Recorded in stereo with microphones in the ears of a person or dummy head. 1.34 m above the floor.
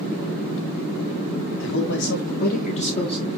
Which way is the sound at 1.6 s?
70° left (ahead or behind).